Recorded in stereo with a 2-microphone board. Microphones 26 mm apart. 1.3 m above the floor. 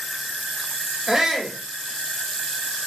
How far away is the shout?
About 0.7 m.